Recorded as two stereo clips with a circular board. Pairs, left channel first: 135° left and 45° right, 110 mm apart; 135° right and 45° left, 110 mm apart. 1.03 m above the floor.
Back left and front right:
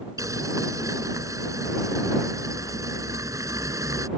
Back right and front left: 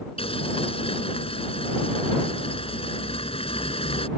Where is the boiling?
105° right.